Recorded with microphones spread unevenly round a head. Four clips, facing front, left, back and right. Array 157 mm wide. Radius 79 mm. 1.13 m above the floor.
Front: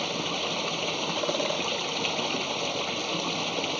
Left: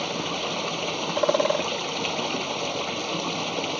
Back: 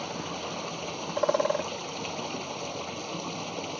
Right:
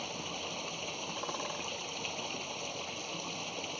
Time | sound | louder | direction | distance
0.0 | running water | left 12 dB, front 4 dB | 55° left | ?
1.2 | a bird | left 20 dB, back 6 dB | 95° left | ?